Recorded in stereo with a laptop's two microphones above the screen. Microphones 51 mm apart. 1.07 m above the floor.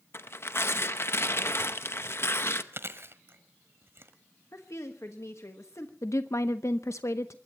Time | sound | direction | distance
0.1 | tearing paper | 50° left (ahead or behind) | 0.7 m
2.7 | chewing | 50° right (ahead or behind) | 1.2 m
4.5 | a woman speaking | 65° left (ahead or behind) | 1.3 m
6.0 | a woman speaking | 70° left (ahead or behind) | 0.7 m